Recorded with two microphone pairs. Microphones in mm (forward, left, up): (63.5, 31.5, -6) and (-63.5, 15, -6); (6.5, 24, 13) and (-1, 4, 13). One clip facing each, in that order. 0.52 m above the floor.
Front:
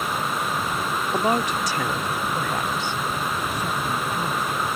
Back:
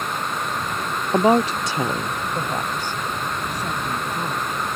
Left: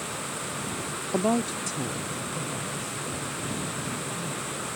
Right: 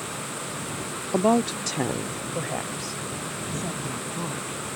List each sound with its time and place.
1.1 s a woman speaking: 175° left; by 4.6 s 95° right